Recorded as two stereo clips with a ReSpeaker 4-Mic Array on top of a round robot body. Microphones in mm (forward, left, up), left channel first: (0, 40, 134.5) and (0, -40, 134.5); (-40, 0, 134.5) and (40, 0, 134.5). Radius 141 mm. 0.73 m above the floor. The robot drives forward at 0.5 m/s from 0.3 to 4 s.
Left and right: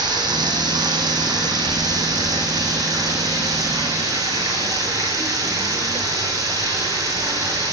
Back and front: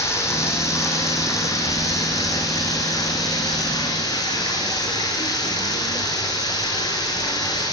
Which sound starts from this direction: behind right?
Running water, at 0.0 s.